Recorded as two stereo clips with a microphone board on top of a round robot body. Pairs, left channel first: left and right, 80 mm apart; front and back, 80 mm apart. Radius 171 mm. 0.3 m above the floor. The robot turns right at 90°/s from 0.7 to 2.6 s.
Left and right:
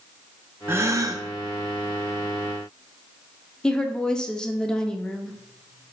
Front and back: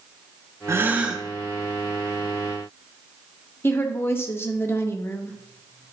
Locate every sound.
0.7 s a gasp: 140° right, 0.8 m; by 1.2 s 90° right, 0.8 m
3.6 s a woman speaking: 20° left, 0.9 m